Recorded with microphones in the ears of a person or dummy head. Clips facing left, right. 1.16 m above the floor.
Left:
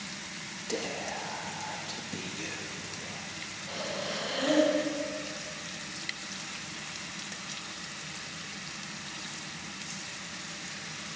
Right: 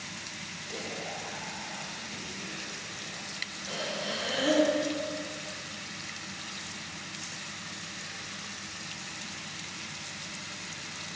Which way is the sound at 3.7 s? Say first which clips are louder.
Even; 40° right (ahead or behind).